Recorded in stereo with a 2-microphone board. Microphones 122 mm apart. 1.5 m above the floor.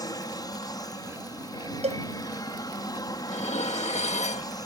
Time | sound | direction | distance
0.0 | an aircraft | 30° left (ahead or behind) | ?
1.8 | a cowbell | 65° right (ahead or behind) | ?
3.3 | dishes clattering | 65° left (ahead or behind) | ?